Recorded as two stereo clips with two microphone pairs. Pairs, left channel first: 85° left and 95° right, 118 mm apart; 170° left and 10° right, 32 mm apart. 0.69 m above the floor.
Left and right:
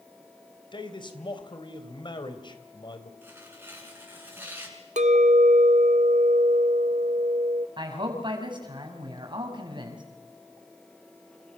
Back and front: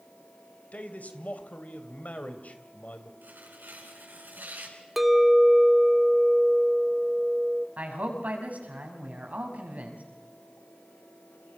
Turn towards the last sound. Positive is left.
turn(degrees=-45)